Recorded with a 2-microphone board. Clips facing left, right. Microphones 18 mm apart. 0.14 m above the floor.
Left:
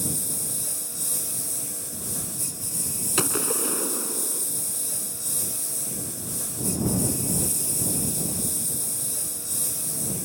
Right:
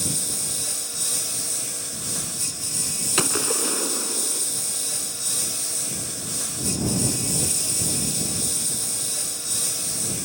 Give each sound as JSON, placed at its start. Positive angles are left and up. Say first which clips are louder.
{"t": 0.0, "sound": "a lawn mower", "louder": "right 4 dB", "side_deg": -40}
{"t": 3.2, "sound": "a gunshot", "louder": "right 2 dB", "side_deg": -15}